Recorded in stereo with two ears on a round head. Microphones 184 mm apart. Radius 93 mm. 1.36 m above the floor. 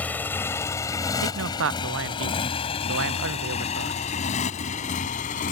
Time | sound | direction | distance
0.0 | a motorcycle | 10° left (ahead or behind) | ?
1.2 | a man speaking | 70° right (ahead or behind) | ?